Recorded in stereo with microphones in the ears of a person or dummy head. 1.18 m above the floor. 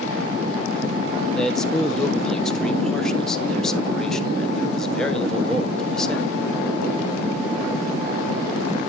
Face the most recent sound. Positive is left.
turn(degrees=5)  # may be behind; listen again after turning